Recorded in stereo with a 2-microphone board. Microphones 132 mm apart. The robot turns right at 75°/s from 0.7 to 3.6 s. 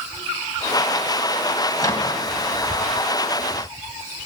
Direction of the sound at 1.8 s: 30° left (ahead or behind).